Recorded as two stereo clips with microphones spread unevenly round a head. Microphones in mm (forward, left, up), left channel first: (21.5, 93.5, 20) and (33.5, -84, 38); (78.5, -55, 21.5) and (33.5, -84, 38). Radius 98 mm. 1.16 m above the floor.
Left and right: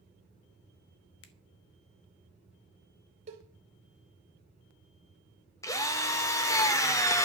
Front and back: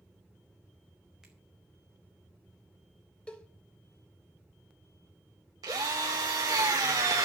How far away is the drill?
About 1.0 m.